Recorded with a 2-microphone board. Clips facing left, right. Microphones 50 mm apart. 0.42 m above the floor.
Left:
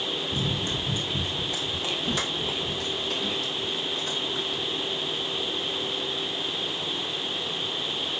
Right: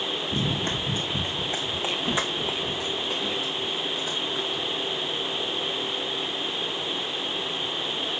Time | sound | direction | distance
0.3 | running footsteps | 50° right (ahead or behind) | 1.3 m